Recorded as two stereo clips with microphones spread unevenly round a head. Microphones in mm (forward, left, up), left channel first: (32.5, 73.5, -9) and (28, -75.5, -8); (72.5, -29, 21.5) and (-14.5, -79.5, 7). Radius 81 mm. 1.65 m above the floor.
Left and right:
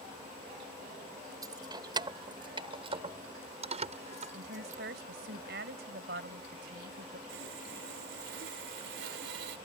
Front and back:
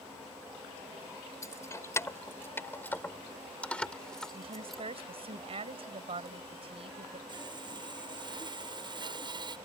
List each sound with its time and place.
1.4 s keys jangling: 25° right; by 4.8 s 55° right
4.3 s a woman speaking: 125° right
7.3 s sawing: 105° right